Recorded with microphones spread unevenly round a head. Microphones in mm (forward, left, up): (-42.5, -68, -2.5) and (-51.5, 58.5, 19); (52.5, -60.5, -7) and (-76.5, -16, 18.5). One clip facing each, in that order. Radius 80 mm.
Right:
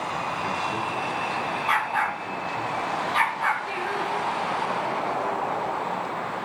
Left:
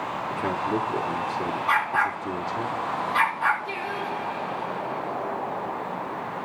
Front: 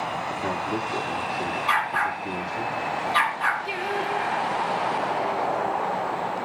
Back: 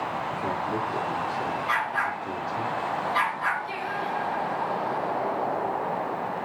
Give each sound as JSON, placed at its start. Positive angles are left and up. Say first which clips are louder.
{"t": 0.3, "sound": "a man speaking", "louder": "left 2 dB, front 1 dB", "azimuth_deg": 50, "distance_m": 1.9}
{"t": 1.7, "sound": "a dog barking", "louder": "left 1 dB, front 3 dB", "azimuth_deg": -15, "distance_m": 8.0}
{"t": 3.6, "sound": "singing", "louder": "right 2 dB, front 3 dB", "azimuth_deg": 10, "distance_m": 4.0}